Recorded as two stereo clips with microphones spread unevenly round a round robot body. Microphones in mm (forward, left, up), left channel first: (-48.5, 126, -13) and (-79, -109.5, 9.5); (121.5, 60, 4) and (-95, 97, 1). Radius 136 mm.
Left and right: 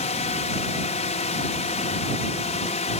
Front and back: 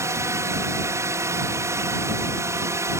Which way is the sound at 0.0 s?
105° left.